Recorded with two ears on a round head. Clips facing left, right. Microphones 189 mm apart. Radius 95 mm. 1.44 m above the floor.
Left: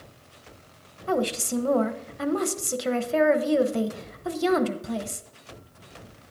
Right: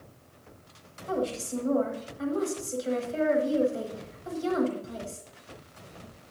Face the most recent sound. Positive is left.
turn(degrees=75)  # may be behind; listen again after turning